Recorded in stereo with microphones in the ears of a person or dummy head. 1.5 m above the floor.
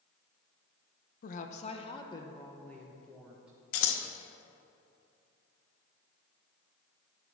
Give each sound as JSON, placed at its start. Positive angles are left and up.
{"t": 1.2, "sound": "a woman speaking", "side_deg": 45, "distance_m": 1.0}
{"t": 3.7, "sound": "scissors", "side_deg": 80, "distance_m": 1.3}